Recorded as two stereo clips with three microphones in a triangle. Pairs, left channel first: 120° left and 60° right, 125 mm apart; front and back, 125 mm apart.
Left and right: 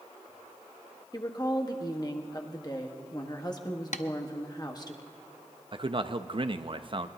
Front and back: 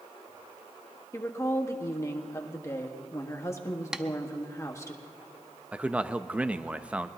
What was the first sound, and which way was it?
A woman speaking, 65° left.